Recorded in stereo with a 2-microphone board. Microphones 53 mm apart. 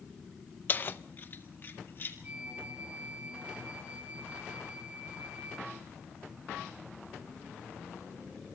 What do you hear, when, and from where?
0.7 s keys jangling: 35° left (ahead or behind), 0.5 m; by 2.1 s 45° left (ahead or behind), 2.5 m
2.2 s a flute: 25° right (ahead or behind), 1.4 m